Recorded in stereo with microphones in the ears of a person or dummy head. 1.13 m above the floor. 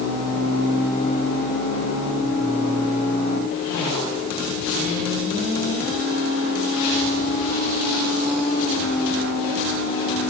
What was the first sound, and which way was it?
Only background noise.